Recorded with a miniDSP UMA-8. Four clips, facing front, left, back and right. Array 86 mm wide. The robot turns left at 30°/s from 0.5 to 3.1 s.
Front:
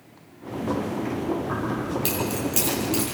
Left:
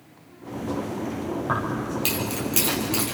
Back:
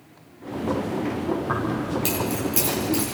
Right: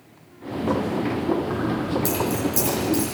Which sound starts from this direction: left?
Keys jangling, at 1.5 s.